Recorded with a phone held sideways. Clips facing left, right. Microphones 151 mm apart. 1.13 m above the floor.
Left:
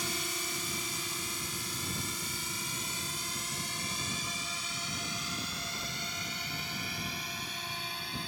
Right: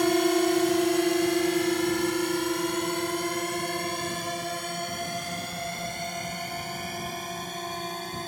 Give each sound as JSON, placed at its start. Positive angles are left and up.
{"t": 0.0, "sound": "a drone", "side_deg": -70}